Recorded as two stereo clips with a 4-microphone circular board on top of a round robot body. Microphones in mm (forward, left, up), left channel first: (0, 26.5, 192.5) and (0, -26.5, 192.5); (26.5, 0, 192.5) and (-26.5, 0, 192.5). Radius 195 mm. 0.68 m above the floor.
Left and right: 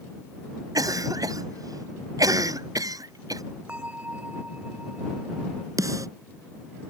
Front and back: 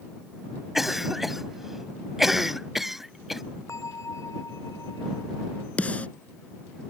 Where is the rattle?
No rattle in this recording.